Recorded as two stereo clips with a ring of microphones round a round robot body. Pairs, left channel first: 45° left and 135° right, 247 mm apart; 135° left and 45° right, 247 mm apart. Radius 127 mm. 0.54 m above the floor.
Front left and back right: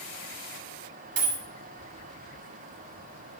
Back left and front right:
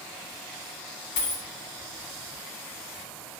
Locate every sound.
1.2 s a dropped coin: straight behind, 0.7 m